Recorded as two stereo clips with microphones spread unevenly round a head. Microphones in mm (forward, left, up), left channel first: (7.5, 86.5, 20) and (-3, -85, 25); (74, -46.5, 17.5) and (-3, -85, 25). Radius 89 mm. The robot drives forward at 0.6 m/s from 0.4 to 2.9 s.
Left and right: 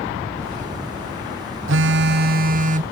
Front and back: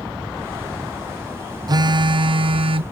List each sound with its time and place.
1.7 s a phone buzzing: 110° right; by 2.8 s 145° right